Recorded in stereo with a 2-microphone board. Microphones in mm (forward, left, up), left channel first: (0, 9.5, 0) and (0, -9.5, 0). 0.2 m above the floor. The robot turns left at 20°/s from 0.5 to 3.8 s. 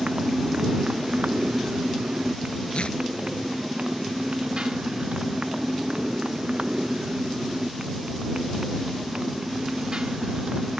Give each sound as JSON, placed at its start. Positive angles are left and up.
{"t": 0.0, "sound": "a motorcycle", "side_deg": -60}
{"t": 2.7, "sound": "tearing paper", "side_deg": 65}